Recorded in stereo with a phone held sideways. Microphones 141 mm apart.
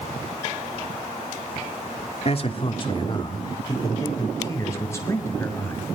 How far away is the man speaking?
About 2.5 m.